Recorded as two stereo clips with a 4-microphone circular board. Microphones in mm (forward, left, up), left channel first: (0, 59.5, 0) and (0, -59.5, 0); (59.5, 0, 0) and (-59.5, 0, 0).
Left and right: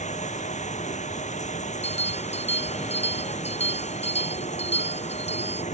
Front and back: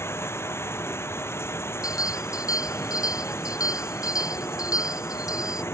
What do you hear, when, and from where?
0.0 s running water: 70° left
1.8 s a bell: 60° left